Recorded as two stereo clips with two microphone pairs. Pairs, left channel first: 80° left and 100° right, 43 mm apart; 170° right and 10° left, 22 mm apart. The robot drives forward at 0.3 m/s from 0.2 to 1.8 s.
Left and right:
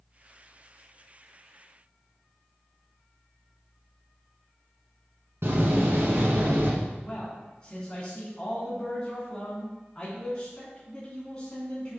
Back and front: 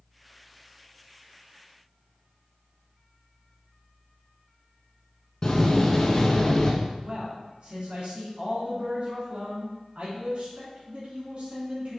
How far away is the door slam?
About 1.5 m.